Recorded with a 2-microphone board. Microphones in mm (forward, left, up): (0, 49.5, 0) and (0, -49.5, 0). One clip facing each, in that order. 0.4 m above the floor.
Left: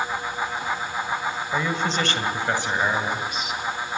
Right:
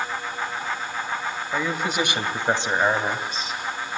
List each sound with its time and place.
1.5 s a man speaking: centre (ahead or behind), 1.6 m; by 3.6 s 35° right (ahead or behind), 2.5 m